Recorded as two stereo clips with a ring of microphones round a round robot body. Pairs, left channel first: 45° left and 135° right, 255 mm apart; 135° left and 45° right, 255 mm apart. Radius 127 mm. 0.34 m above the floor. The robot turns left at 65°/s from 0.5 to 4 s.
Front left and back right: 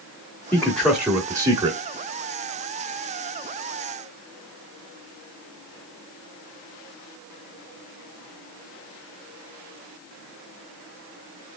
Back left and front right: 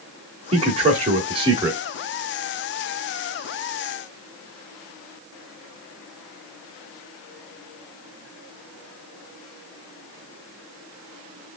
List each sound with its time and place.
0.5 s a man speaking: 25° right, 1.2 m; by 1.8 s 105° right, 1.2 m